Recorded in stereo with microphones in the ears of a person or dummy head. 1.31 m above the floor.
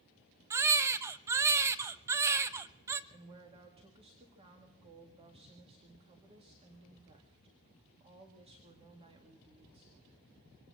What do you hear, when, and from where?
0.5 s a baby crying: 15° right (ahead or behind), 0.7 m
3.1 s a woman speaking: 25° right (ahead or behind), 2 m